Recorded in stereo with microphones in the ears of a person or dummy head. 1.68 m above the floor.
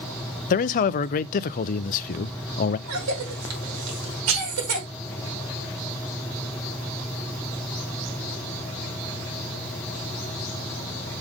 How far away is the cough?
About 5 m.